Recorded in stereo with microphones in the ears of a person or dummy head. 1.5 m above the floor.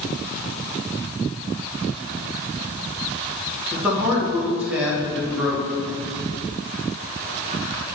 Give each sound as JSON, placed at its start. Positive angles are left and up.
{"t": 3.7, "sound": "a man speaking", "side_deg": -5, "distance_m": 2.5}